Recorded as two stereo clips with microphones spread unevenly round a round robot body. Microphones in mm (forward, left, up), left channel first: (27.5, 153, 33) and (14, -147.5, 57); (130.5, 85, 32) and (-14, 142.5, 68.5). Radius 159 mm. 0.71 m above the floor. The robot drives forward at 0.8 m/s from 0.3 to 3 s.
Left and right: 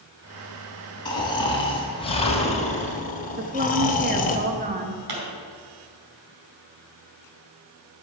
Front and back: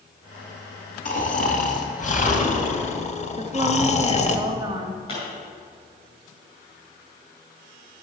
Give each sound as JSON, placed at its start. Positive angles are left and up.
{"t": 1.1, "sound": "snoring", "azimuth_deg": 10, "distance_m": 3.0}
{"t": 3.4, "sound": "a woman speaking", "azimuth_deg": -140, "distance_m": 1.2}
{"t": 5.1, "sound": "a pop", "azimuth_deg": -85, "distance_m": 4.5}